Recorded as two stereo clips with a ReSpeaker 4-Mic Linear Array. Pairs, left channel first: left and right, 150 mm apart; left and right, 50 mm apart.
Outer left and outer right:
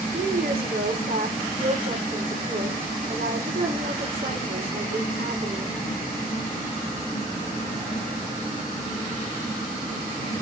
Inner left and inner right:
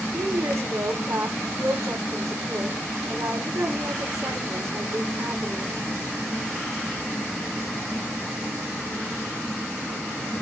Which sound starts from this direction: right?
A woman speaking, at 0.1 s.